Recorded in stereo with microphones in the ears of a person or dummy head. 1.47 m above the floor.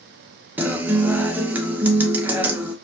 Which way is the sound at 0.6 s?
15° right (ahead or behind).